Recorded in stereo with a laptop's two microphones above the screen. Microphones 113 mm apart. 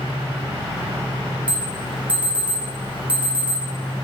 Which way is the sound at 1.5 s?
10° right (ahead or behind).